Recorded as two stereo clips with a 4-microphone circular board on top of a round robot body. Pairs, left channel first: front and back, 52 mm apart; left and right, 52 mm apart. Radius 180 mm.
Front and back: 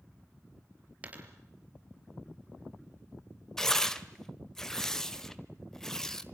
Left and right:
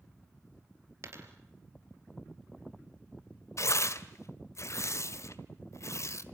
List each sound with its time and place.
1.0 s a dropped coin: 120° right, 4 m
3.6 s tearing paper: 80° left, 1.7 m